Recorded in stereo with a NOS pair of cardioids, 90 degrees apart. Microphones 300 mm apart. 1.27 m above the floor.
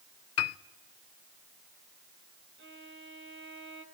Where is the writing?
I don't hear writing.